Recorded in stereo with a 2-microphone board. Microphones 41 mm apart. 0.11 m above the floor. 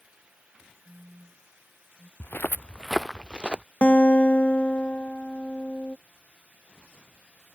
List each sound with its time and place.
0.8 s a phone buzzing: 45° right (ahead or behind)
2.2 s footsteps: 70° left (ahead or behind); by 3.6 s 30° right (ahead or behind)
3.8 s a guitar: 30° left (ahead or behind)